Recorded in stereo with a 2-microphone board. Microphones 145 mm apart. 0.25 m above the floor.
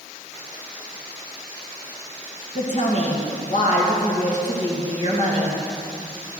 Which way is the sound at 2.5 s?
60° left (ahead or behind).